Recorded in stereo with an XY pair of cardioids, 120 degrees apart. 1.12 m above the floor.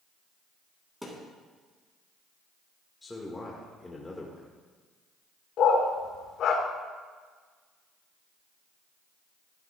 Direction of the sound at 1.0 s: Straight ahead.